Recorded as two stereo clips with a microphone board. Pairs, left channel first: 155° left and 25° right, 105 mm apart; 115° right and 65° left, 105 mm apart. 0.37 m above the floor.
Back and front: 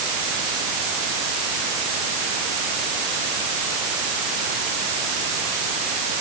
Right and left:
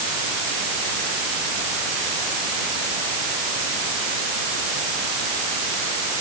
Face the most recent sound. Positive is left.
No sound to turn to.